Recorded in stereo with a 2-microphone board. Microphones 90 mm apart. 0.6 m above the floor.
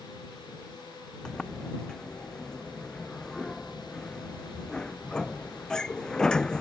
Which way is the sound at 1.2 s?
10° left (ahead or behind).